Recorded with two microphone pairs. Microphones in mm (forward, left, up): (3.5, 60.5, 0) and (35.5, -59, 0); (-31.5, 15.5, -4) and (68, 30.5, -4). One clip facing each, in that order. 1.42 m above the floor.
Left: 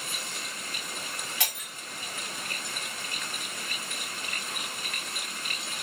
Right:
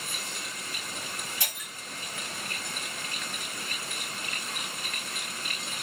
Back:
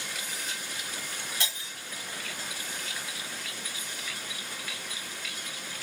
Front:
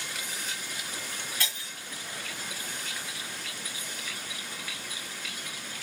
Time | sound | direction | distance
1.4 | breaking glass | 120° left | 4.5 m